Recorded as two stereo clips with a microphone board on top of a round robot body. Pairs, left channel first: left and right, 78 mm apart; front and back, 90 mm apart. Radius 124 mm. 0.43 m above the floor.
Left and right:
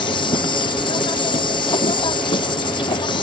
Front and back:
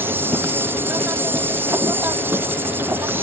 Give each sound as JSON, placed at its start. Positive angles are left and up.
{"t": 0.0, "sound": "an insect", "azimuth_deg": 110}